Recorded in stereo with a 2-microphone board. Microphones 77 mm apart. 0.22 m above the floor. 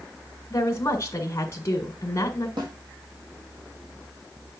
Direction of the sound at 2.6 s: 80° right.